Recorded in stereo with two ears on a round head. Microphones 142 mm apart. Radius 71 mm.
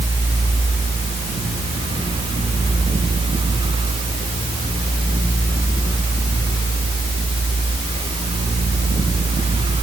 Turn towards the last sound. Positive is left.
No sound to turn to.